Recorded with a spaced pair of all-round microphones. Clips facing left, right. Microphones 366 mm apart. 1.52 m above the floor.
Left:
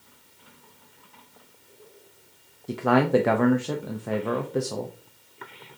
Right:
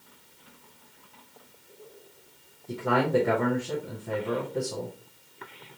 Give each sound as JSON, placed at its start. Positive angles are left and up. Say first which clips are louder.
{"t": 2.7, "sound": "a man speaking", "louder": "left 4 dB", "side_deg": 85, "distance_m": 0.6}